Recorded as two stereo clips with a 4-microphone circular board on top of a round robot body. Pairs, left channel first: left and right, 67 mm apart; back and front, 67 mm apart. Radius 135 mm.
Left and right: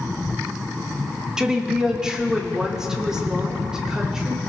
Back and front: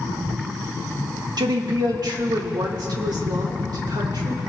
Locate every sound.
1.4 s a woman speaking: 10° right, 1.5 m